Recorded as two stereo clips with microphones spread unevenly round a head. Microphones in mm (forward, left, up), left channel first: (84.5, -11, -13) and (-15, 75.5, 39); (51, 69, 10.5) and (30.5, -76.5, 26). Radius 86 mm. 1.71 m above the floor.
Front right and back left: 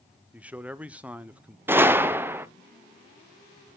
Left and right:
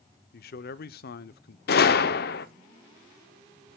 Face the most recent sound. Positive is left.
turn(degrees=80)